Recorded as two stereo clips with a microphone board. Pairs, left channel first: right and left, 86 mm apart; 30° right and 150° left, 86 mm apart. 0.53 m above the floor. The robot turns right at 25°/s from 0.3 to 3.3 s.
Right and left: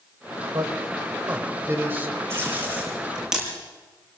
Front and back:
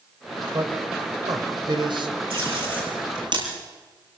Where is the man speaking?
120° left, 3 m; by 2.2 s 160° left, 3 m.